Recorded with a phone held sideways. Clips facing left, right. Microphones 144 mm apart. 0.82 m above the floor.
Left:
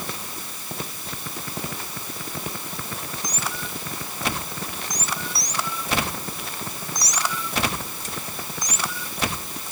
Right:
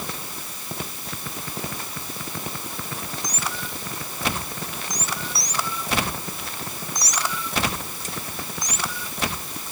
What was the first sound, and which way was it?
Only background noise.